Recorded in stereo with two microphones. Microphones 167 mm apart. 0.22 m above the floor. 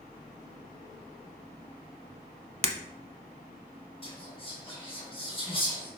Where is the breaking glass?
40° right (ahead or behind), 0.5 m.